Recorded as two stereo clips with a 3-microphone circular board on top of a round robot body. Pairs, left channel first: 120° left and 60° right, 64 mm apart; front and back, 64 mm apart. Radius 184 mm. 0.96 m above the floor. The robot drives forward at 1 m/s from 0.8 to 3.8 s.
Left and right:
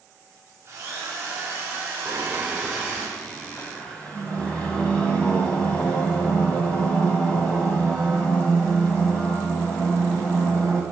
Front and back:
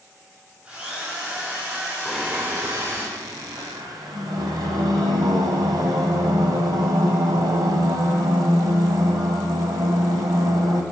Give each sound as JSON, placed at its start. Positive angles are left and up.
{"t": 0.7, "sound": "a drill", "azimuth_deg": -110, "distance_m": 6.0}
{"t": 2.0, "sound": "singing", "azimuth_deg": -85, "distance_m": 0.7}